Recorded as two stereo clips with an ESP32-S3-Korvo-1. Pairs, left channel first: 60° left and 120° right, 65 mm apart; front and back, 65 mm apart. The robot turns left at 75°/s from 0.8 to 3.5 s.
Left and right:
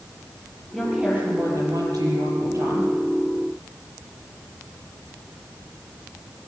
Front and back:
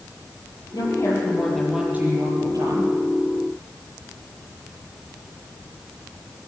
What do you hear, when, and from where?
0.7 s a woman speaking: 25° right, 7.5 m; by 2.9 s 175° left, 7.5 m